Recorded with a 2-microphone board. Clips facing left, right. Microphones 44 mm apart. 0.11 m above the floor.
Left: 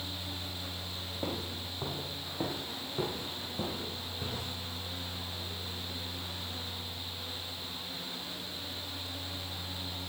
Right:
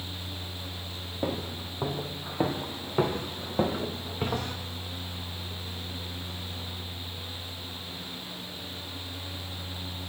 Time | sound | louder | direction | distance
1.2 | footsteps | right 6 dB | 20° right (ahead or behind) | 3 m